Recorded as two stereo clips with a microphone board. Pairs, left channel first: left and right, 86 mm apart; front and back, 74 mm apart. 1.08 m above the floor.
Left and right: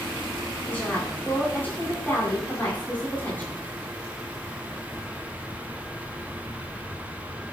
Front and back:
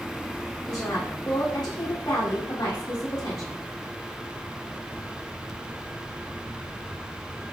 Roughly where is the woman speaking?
Ahead.